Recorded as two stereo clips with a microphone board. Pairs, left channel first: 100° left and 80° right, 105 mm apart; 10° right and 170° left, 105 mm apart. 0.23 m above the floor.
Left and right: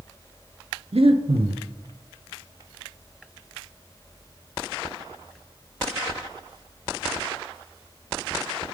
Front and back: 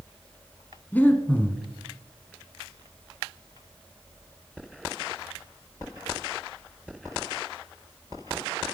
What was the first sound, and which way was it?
Breathing, 85° right.